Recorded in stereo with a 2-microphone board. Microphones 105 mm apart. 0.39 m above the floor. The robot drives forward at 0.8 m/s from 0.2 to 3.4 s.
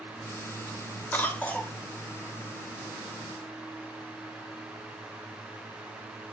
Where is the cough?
15° left (ahead or behind), 1.2 m; by 1.7 s 10° left (ahead or behind), 1.6 m.